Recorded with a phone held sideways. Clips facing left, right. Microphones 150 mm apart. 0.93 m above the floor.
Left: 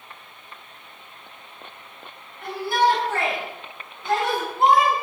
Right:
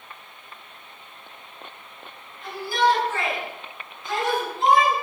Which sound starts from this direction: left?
A shout, at 2.4 s.